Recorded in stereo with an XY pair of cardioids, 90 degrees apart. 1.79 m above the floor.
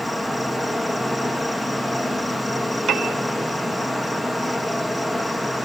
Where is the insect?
5° right, 1.3 m.